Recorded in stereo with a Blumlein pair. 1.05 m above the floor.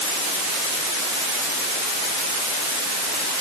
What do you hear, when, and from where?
Only background noise.